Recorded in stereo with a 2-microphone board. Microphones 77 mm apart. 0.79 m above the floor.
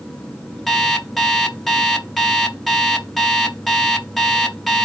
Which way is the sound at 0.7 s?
Centre (ahead or behind).